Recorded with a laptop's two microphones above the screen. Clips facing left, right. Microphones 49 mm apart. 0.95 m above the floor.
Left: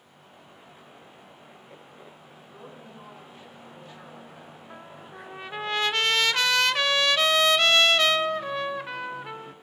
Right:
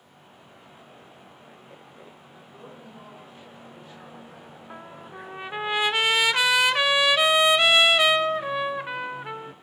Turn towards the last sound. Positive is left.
turn(degrees=-10)  # may be behind; listen again after turning